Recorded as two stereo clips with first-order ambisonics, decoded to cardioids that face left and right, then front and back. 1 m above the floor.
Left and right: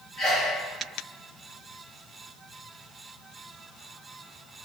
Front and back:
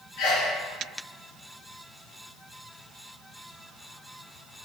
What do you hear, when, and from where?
0.2 s a sneeze: 30° left, 1.1 m